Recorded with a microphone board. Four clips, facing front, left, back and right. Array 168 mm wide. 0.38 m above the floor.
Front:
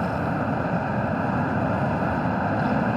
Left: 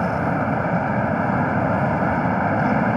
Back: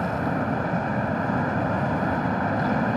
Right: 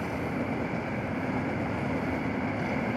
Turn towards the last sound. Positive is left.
turn(degrees=85)